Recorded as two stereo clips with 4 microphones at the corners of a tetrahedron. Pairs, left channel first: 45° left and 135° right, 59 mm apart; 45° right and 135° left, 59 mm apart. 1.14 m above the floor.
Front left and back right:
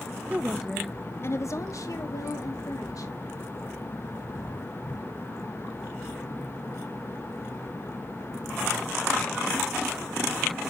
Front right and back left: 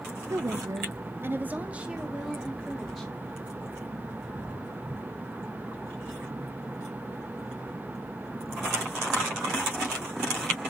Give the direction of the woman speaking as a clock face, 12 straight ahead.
7 o'clock.